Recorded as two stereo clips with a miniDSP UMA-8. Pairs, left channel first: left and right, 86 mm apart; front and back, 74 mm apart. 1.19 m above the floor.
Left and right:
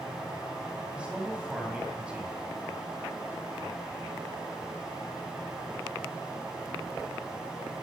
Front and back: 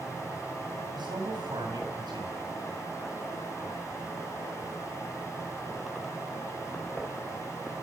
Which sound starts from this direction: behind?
A man speaking, at 0.9 s.